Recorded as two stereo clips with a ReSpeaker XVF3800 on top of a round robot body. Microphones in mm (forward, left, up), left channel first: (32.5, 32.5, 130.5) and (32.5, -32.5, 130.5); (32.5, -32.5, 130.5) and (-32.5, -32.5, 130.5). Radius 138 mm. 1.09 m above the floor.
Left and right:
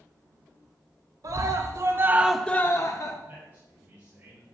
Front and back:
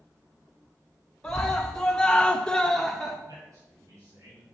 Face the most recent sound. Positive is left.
turn(degrees=-155)